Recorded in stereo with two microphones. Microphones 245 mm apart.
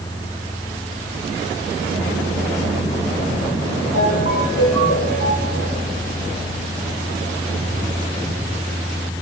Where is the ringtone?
75° left (ahead or behind), 7.5 m.